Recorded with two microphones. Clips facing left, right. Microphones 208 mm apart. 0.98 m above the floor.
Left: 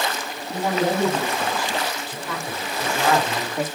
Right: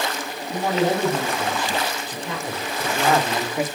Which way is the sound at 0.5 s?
25° right (ahead or behind).